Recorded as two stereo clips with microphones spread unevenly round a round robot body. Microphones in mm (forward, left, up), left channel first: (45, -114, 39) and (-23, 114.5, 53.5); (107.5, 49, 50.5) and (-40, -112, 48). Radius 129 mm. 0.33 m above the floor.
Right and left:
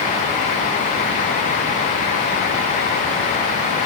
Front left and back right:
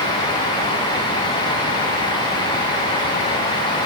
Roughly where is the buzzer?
I don't hear a buzzer.